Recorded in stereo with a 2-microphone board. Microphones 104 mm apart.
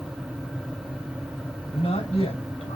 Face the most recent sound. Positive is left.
turn(degrees=75)  # may be behind; listen again after turning